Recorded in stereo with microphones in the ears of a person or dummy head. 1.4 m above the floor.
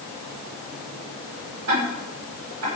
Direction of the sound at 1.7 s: 85° right.